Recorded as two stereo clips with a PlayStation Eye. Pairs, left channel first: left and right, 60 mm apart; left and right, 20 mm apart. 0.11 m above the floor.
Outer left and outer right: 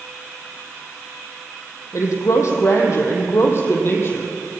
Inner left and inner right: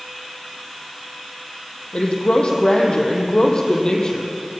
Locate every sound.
1.9 s a woman speaking: 55° left (ahead or behind), 4.5 m; by 4.3 s 40° left (ahead or behind), 4 m